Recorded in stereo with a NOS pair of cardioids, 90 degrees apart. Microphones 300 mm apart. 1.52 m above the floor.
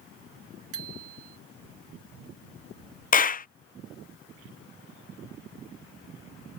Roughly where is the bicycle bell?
Ahead right.